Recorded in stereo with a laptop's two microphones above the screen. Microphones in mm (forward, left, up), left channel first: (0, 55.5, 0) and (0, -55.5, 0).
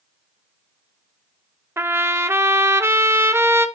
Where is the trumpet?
20° right (ahead or behind), 0.8 m.